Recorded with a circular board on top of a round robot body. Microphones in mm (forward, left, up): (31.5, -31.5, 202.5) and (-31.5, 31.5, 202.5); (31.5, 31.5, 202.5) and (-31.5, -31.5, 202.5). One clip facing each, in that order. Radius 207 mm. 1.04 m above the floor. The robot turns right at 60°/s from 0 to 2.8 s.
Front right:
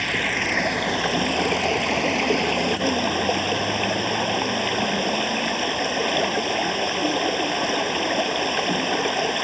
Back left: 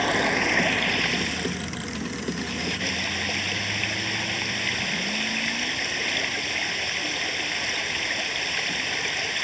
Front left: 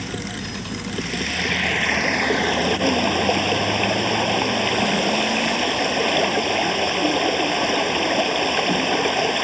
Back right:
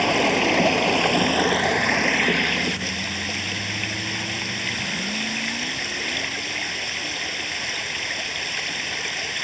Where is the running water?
165° right; by 9.4 s 5° left.